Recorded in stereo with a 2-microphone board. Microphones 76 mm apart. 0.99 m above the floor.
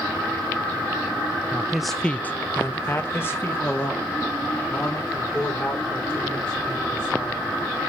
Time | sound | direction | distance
1.5 | a man speaking | 15° right (ahead or behind) | 0.6 m